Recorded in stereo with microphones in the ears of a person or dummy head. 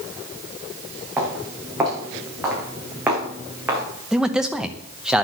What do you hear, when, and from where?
1.2 s footsteps: 10° right (ahead or behind), 5.5 m
4.1 s a man speaking: 5° right (ahead or behind), 0.8 m